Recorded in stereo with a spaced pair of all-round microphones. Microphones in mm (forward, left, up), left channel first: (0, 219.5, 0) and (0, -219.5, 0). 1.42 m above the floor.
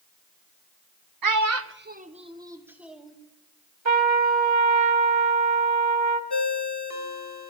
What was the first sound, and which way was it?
A child speaking, 50° right (ahead or behind).